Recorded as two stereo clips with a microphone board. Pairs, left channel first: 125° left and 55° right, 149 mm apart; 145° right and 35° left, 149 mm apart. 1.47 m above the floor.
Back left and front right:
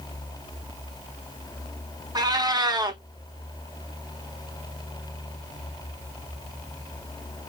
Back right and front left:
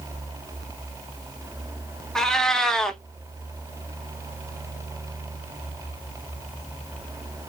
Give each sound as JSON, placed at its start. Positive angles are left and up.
{"t": 2.1, "sound": "a cat meowing", "azimuth_deg": -65, "distance_m": 0.7}